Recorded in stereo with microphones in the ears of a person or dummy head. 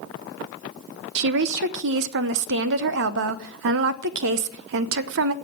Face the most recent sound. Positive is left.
turn(degrees=-65)  # may be behind; listen again after turning